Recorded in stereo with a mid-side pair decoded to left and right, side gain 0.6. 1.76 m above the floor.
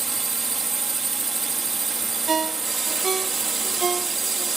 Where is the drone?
25° right.